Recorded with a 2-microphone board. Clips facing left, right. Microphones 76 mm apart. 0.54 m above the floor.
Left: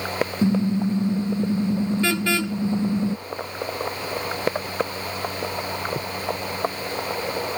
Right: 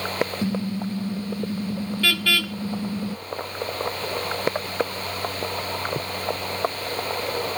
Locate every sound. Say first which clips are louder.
0.4 s a car horn: left 5 dB; 25° left (ahead or behind)